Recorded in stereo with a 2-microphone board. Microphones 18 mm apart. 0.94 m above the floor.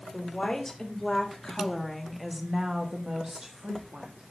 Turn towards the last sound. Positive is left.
turn(degrees=-80)